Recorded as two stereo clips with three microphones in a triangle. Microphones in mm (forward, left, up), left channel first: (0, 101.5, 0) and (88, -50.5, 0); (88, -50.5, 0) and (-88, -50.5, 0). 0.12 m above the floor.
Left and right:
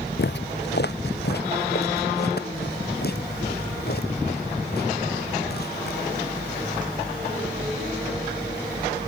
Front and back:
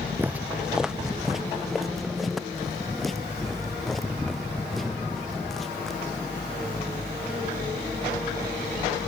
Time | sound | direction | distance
0.2 | footsteps | 105° left | ?